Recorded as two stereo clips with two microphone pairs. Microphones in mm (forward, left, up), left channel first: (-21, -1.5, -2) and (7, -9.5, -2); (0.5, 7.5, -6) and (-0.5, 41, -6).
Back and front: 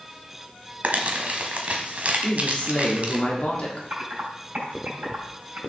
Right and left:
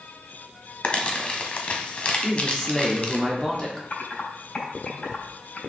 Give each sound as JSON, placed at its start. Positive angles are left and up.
{"t": 0.8, "sound": "crumpling", "azimuth_deg": -40, "distance_m": 1.3}
{"t": 2.2, "sound": "a man speaking", "azimuth_deg": -155, "distance_m": 2.0}
{"t": 3.9, "sound": "typing on a keyboard", "azimuth_deg": -30, "distance_m": 3.5}